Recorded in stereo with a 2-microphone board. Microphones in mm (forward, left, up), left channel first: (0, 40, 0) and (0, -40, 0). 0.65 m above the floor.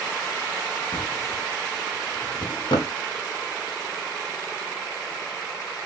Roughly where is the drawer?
Left.